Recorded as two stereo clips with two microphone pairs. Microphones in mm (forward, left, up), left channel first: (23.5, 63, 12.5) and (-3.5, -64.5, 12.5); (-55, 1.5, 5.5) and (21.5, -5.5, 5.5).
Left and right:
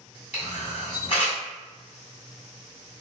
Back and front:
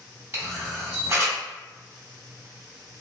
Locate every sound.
0.3 s a camera shutter: 50° left, 1.2 m